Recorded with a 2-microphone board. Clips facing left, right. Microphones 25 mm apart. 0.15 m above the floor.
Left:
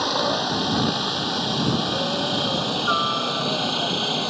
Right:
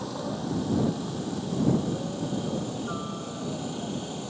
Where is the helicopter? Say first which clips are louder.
Left 11 dB; 70° left (ahead or behind); by 4.3 s 65° left (ahead or behind).